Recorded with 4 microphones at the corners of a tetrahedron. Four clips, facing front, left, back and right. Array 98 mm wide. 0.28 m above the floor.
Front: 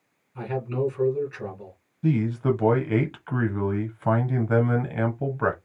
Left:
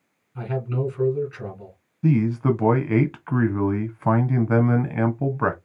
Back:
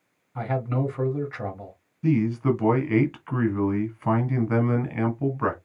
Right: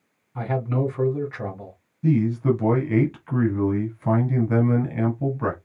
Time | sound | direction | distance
0.3 | a man speaking | 135° right | 2.5 m
2.0 | a man speaking | 75° left | 1.4 m